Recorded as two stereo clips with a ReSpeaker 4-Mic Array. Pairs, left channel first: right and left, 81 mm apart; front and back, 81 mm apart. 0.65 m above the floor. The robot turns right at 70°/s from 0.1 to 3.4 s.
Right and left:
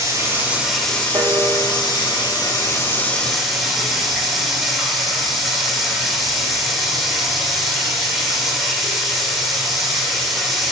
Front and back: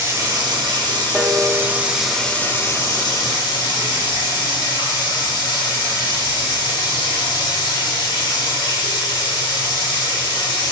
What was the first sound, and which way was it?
Running water, 130° left.